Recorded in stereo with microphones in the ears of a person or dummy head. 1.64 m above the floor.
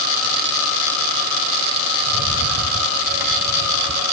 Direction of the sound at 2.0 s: 55° right (ahead or behind).